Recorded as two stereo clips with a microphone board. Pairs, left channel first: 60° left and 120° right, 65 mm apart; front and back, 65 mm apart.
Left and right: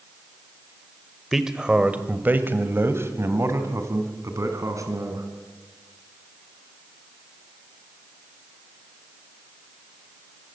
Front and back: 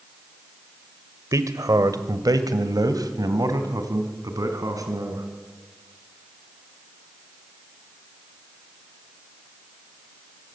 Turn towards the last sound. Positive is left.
turn(degrees=-150)